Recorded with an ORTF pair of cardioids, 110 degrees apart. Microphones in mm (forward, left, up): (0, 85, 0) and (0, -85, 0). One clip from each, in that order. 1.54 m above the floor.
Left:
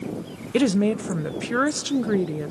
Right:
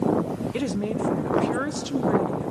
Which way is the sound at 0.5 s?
30° left.